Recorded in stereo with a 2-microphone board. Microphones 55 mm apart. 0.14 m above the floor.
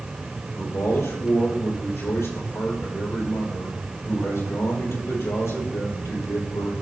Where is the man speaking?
60° left (ahead or behind), 4.5 m.